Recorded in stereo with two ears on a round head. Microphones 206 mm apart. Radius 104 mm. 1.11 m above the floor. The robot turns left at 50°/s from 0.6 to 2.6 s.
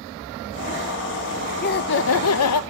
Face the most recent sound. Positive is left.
turn(degrees=90)